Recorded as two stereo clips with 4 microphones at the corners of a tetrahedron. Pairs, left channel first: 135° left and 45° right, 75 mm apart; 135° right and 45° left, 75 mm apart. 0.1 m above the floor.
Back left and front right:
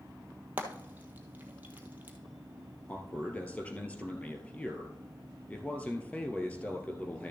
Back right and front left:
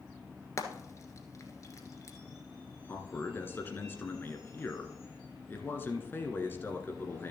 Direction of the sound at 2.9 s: 170° right.